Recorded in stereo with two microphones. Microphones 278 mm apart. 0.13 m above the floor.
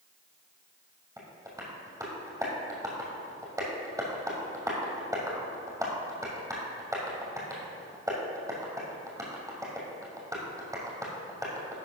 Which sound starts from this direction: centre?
Tapping, at 1.2 s.